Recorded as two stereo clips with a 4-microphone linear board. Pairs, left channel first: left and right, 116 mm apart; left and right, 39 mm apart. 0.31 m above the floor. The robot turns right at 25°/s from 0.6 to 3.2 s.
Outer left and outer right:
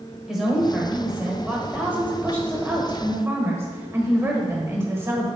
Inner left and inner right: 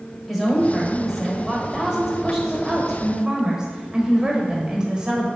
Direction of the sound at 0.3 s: 5° right (ahead or behind).